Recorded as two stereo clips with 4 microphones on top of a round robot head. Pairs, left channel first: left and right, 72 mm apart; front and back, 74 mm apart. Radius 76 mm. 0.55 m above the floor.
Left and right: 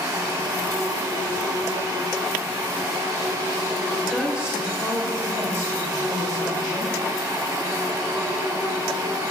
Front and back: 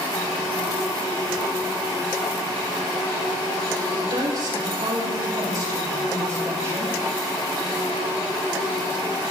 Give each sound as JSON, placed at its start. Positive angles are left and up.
{"t": 3.9, "sound": "a woman speaking", "azimuth_deg": 180, "distance_m": 4.5}